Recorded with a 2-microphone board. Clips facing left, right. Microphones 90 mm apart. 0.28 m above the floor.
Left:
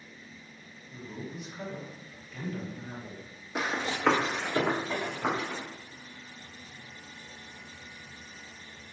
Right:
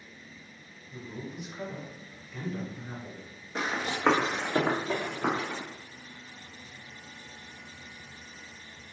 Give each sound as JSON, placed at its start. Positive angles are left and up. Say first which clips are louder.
{"t": 0.9, "sound": "a man speaking", "louder": "even", "side_deg": -20, "distance_m": 1.8}
{"t": 3.5, "sound": "running footsteps", "louder": "even", "side_deg": 10, "distance_m": 0.8}